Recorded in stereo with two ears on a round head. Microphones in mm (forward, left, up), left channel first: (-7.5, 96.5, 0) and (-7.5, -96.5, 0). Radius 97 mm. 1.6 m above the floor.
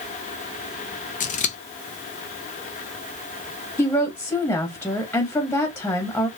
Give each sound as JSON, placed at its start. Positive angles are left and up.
{"t": 1.2, "sound": "scissors", "side_deg": 35, "distance_m": 0.9}
{"t": 3.8, "sound": "a woman speaking", "side_deg": 10, "distance_m": 1.1}